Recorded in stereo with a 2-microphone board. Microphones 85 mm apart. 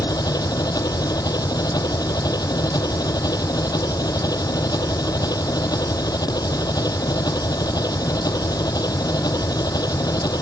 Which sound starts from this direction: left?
An engine running, at 0.0 s.